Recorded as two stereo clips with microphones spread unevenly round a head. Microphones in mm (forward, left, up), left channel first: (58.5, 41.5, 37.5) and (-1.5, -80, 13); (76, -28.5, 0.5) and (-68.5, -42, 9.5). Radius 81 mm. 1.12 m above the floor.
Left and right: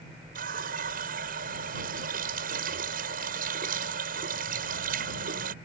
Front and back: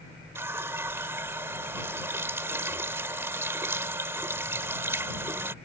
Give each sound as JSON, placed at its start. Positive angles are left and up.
{"t": 0.3, "sound": "a running tap", "azimuth_deg": -100}